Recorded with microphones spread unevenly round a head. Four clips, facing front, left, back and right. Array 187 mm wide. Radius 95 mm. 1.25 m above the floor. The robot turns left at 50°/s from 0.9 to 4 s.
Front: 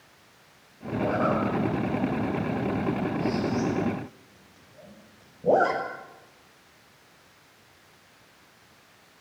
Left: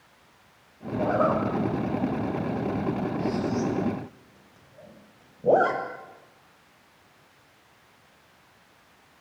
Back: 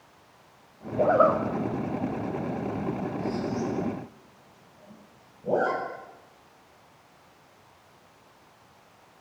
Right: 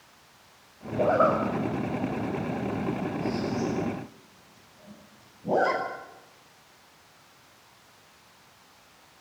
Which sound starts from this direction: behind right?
A zipper, at 1.0 s.